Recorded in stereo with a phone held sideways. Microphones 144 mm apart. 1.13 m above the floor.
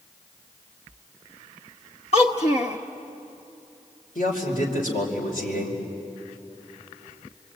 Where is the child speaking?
50° left (ahead or behind), 1.0 m.